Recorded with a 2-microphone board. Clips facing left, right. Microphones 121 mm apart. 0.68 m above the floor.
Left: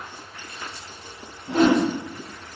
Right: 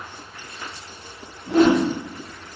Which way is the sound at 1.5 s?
65° right (ahead or behind).